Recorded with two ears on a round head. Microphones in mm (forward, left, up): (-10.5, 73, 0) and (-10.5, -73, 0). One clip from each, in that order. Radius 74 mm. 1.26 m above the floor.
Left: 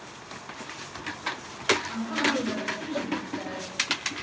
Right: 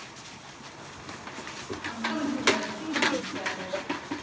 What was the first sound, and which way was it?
A woman speaking, 80° right.